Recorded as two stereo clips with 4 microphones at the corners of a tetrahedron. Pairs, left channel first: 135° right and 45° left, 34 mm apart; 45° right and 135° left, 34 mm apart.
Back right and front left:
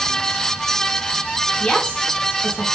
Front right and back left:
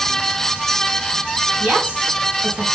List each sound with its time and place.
1.6 s a woman speaking: 150° left, 3.5 m